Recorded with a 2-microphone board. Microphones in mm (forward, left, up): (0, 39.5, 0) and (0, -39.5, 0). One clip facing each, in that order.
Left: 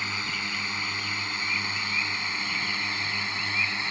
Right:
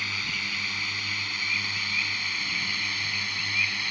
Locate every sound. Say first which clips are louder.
0.0 s a drone: left 1 dB; 25° left (ahead or behind)